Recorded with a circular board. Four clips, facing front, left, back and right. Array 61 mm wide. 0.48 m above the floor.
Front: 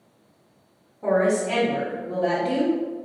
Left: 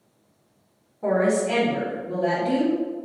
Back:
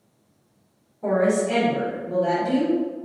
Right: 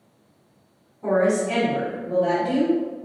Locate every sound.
1.0 s a woman speaking: 85° left, 1.5 m; by 2.8 s 25° left, 1.3 m